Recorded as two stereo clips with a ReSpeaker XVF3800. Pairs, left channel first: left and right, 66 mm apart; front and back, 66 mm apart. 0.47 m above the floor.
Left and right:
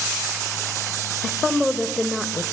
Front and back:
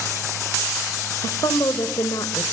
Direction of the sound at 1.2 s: Straight ahead.